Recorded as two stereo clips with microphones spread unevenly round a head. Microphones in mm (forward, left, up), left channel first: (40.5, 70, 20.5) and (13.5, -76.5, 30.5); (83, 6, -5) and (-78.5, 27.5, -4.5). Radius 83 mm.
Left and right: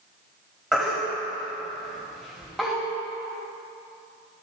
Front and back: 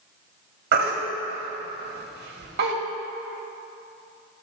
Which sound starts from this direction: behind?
A baby crying, at 0.7 s.